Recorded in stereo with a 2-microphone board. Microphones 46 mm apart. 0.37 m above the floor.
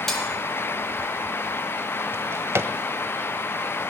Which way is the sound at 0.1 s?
5° left (ahead or behind).